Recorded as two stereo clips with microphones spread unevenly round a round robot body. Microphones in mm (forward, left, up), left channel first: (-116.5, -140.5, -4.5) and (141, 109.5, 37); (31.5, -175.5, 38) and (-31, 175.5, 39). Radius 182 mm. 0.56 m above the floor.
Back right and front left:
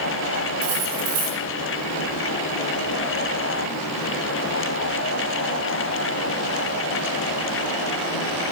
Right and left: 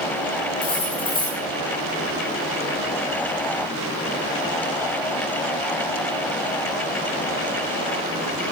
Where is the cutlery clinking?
5° right, 4 m.